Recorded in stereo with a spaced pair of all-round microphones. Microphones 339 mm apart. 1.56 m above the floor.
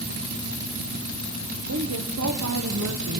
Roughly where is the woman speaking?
Right.